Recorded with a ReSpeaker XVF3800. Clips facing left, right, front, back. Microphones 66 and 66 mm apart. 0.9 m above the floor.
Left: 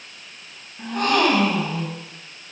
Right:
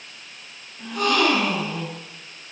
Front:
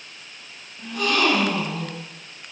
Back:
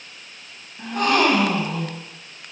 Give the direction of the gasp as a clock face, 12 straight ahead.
7 o'clock.